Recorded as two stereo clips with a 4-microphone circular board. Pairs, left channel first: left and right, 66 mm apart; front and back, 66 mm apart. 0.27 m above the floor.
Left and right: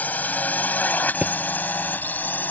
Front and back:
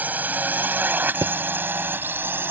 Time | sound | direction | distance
0.0 | a drone | 135° left | ?
1.2 | a thud | 160° right | ?